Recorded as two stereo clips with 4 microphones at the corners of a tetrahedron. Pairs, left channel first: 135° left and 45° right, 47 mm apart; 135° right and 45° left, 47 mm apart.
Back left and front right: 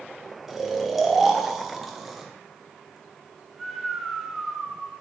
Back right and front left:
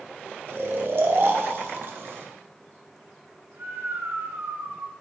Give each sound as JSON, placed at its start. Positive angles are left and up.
{"t": 0.5, "sound": "snoring", "azimuth_deg": 35, "distance_m": 0.7}